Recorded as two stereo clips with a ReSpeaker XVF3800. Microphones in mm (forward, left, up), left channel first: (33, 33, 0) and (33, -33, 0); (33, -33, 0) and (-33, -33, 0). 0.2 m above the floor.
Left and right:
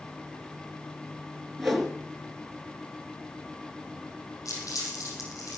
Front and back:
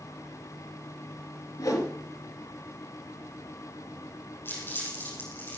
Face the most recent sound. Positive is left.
turn(degrees=55)